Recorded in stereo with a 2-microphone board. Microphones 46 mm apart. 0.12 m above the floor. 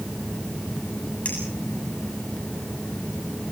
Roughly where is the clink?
Left.